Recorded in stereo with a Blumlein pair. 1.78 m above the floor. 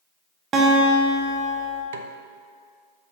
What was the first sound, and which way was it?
A guitar, 25° right.